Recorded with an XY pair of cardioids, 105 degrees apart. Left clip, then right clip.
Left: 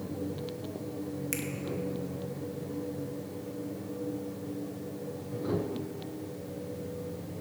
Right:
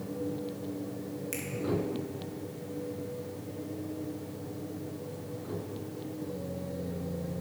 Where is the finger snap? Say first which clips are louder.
Left 3 dB; 35° left, 1.5 m.